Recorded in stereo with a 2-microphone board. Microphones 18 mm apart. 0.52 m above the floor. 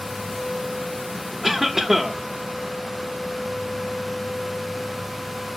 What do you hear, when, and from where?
1.4 s a cough: 15° right (ahead or behind), 1.1 m